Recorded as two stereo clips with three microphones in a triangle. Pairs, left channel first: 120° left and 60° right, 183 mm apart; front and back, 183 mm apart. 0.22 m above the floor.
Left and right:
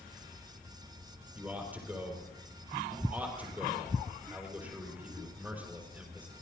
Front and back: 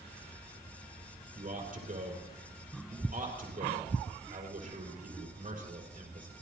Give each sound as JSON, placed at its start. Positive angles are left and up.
{"t": 1.4, "sound": "a man speaking", "azimuth_deg": -140, "distance_m": 4.5}